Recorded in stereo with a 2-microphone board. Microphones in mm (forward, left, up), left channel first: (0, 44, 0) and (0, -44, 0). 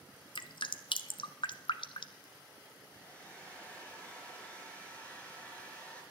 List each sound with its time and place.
0.3 s dripping: 70° left (ahead or behind), 0.7 m
2.9 s a hair dryer: 15° left (ahead or behind), 3.5 m